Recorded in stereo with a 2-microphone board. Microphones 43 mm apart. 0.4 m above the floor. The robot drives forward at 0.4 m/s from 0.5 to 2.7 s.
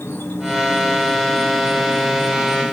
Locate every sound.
0.0 s an insect: 70° left (ahead or behind), 1.5 m; by 2.7 s 60° left (ahead or behind), 1.6 m